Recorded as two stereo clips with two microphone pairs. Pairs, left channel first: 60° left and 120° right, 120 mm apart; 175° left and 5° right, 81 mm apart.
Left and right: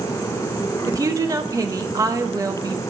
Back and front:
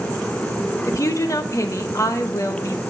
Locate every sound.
0.9 s a woman speaking: 160° right, 0.9 m